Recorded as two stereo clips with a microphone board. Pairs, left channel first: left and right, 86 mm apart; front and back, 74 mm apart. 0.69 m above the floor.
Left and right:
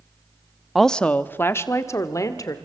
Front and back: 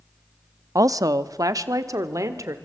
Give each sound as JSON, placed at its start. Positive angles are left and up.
{"t": 0.8, "sound": "a woman speaking", "azimuth_deg": 180, "distance_m": 0.7}